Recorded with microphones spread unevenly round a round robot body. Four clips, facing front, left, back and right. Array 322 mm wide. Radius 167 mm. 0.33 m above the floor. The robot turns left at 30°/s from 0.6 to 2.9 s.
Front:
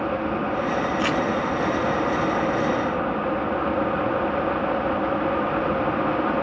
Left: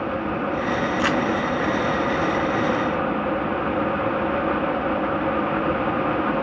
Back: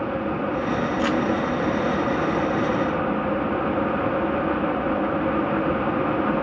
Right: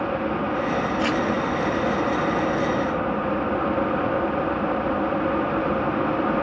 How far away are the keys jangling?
No keys jangling in this recording.